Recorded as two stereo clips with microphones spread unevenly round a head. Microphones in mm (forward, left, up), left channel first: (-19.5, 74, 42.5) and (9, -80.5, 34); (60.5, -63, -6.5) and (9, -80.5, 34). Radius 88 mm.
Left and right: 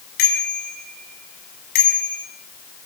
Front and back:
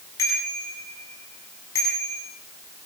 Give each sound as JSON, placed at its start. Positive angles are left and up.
{"t": 0.2, "sound": "a bicycle bell", "azimuth_deg": 70, "distance_m": 8.0}